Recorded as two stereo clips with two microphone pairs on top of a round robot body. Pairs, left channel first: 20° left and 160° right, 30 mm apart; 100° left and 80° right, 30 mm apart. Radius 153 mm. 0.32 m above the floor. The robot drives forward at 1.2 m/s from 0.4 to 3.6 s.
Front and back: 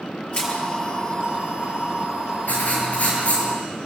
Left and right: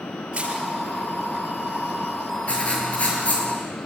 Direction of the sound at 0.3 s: 20° right.